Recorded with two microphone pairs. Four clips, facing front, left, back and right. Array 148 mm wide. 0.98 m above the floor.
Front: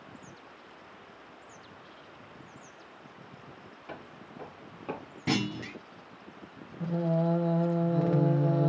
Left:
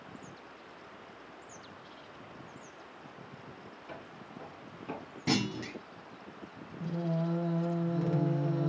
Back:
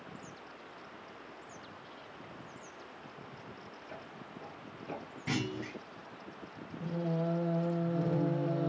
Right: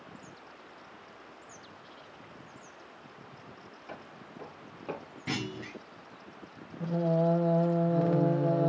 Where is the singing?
60° right, 1.4 m.